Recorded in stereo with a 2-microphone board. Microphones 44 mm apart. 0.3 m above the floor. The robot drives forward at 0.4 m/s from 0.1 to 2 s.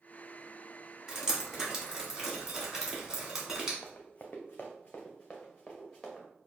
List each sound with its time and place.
1.1 s dripping: 15° right (ahead or behind), 1.3 m; by 3.7 s 10° right (ahead or behind), 1.7 m
3.8 s running footsteps: 45° left (ahead or behind), 0.8 m; by 6.3 s 10° left (ahead or behind), 2.0 m